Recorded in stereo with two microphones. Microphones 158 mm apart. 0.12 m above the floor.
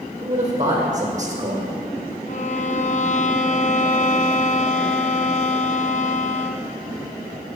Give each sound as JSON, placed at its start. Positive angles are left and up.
{"t": 0.2, "sound": "a man speaking", "side_deg": -50, "distance_m": 4.5}
{"t": 2.3, "sound": "a violin", "side_deg": 55, "distance_m": 0.8}